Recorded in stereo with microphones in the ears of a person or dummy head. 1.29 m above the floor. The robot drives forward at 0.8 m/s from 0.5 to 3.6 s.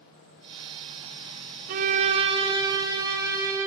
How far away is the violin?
About 0.6 m.